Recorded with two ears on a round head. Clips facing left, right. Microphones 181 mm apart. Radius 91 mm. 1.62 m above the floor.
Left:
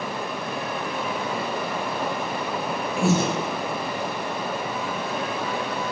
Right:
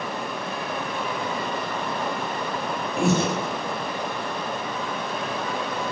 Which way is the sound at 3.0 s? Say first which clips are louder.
Even; centre (ahead or behind).